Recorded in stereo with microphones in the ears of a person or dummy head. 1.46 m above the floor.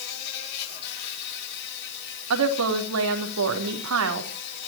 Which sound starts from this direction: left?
An insect, at 0.0 s.